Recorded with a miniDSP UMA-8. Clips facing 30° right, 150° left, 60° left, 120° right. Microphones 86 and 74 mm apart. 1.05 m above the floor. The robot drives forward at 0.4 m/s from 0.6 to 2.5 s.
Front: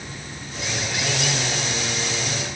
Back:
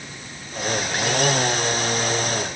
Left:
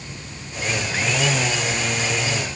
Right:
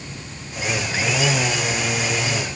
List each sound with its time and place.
Only background noise.